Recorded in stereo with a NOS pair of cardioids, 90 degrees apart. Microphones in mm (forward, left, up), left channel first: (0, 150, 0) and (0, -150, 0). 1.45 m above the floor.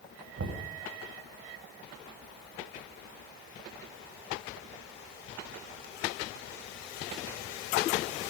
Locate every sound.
0.4 s knocking: 50° right, 8 m